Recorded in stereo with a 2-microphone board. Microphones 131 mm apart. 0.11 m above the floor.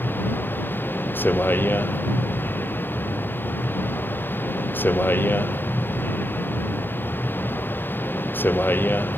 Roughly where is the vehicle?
Centre.